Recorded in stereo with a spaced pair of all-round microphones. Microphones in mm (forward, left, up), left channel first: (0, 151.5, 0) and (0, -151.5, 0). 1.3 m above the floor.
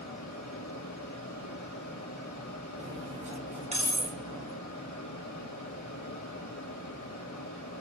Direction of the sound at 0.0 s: 75° left (ahead or behind).